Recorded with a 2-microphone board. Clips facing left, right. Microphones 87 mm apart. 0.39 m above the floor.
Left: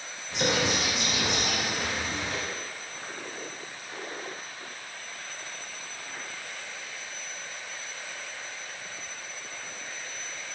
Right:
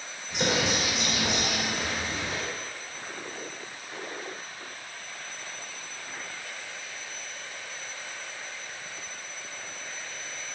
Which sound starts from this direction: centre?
A bird, at 0.3 s.